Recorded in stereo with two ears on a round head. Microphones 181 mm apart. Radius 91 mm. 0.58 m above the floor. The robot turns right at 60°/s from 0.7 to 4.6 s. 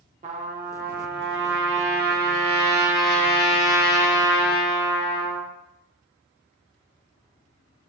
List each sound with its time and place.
0.2 s a trumpet: 140° right, 0.5 m; by 5.5 s 95° left, 0.5 m